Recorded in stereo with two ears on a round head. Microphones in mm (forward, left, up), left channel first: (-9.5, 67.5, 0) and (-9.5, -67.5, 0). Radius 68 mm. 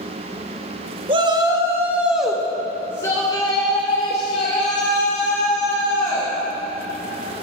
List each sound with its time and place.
1.1 s a shout: 35° right (ahead or behind), 1.1 m; by 6.3 s 50° left (ahead or behind), 2.5 m